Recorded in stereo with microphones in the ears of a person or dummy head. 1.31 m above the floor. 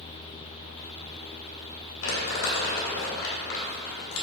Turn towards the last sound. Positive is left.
turn(degrees=75)  # may be behind; listen again after turning